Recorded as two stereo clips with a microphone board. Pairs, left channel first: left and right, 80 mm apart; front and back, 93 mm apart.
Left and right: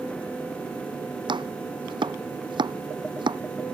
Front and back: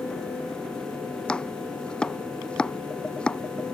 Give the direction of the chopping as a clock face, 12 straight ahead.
3 o'clock.